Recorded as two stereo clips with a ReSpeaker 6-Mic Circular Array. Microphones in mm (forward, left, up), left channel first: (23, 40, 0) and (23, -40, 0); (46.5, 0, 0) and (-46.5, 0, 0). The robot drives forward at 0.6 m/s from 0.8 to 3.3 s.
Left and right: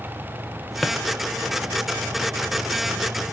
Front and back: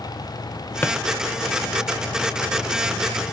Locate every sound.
0.8 s a drawer: straight ahead, 0.6 m; by 1.0 s 5° left, 0.6 m